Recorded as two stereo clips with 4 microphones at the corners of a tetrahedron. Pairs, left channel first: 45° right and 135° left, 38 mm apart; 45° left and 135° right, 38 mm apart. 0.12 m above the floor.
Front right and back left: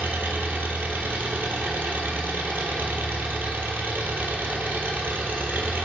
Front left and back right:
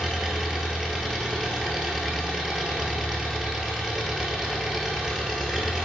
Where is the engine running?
145° left, 1.0 m.